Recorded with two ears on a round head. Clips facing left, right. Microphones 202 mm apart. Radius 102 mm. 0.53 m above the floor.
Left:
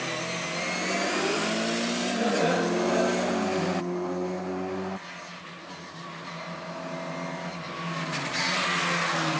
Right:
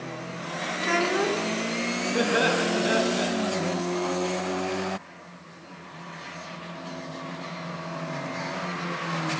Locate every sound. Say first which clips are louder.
0.8 s a child speaking: right 4 dB; 80° right, 3.5 m
2.1 s laughter: right 2 dB; 70° right (ahead or behind), 7 m